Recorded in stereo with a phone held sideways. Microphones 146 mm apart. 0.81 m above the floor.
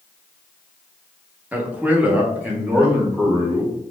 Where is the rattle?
I don't hear a rattle.